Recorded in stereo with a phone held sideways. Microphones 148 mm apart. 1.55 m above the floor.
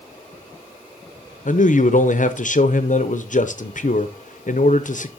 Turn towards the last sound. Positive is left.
turn(degrees=60)  # may be behind; listen again after turning